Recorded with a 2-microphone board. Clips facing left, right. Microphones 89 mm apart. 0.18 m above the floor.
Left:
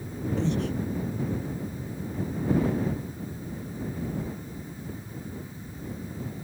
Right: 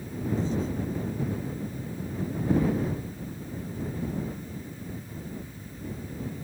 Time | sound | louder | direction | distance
0.4 | breathing | left 3 dB | 75° left (ahead or behind) | ?